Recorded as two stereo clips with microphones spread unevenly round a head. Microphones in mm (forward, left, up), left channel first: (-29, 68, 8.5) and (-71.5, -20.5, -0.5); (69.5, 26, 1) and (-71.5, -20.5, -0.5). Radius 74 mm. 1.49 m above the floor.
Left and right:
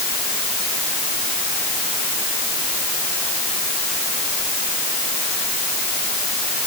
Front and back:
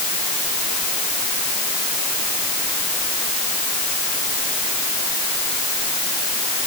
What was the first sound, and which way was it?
Only background noise.